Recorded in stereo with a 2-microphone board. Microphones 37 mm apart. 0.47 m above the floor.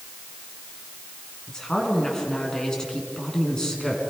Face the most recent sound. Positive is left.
turn(degrees=15)  # may be behind; listen again after turning